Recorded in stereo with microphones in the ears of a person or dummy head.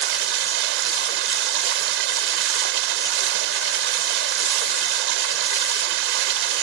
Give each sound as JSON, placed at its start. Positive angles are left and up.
{"t": 0.0, "sound": "running water", "side_deg": -75}